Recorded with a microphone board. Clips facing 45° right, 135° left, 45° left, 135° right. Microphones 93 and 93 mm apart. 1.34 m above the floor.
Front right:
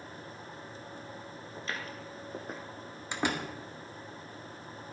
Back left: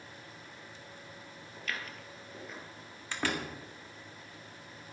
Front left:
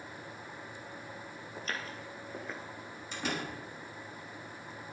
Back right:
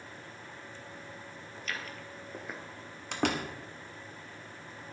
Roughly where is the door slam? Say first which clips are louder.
Front right 2 dB, back right 5 dB; behind right.